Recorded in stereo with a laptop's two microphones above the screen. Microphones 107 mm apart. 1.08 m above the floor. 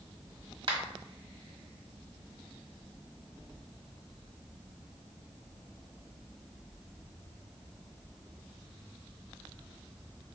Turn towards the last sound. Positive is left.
turn(degrees=-55)  # may be behind; listen again after turning